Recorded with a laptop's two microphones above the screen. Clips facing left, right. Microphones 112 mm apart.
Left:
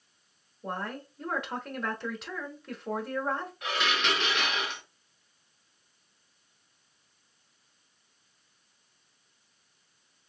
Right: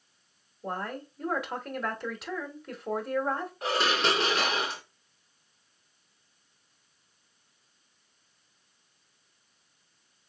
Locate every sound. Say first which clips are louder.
0.6 s a woman speaking: right 1 dB; centre (ahead or behind), 1.2 m
3.6 s dishes clattering: right 4 dB; 35° right (ahead or behind), 0.7 m